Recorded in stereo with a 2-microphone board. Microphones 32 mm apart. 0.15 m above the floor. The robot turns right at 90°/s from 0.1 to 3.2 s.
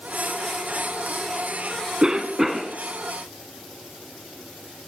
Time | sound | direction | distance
2.0 | a cough | 25° right (ahead or behind) | 1.1 m